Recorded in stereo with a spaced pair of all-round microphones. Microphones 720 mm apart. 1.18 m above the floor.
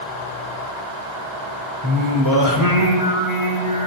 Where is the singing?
25° right (ahead or behind), 4 m.